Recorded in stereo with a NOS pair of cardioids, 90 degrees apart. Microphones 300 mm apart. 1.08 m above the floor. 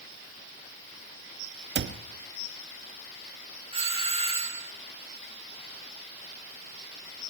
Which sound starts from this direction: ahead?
A doorbell, at 3.7 s.